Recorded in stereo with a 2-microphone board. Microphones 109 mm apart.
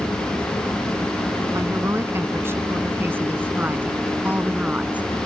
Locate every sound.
1.5 s a woman speaking: 25° right (ahead or behind); by 5.1 s 15° right (ahead or behind)